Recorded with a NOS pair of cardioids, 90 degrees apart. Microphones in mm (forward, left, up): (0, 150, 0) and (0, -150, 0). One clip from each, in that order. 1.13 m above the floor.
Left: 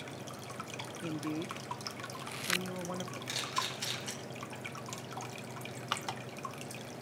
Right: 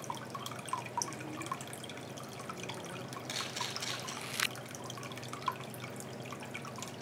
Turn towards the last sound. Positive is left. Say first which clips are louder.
# left 3 dB
turn(degrees=10)